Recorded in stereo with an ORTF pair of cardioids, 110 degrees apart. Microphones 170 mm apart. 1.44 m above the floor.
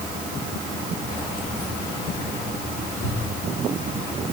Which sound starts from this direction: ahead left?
Keys jangling, at 1.1 s.